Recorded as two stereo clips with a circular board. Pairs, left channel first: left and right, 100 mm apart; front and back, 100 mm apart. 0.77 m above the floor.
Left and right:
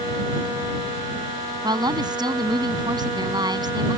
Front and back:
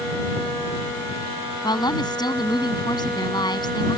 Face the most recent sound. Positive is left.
turn(degrees=-45)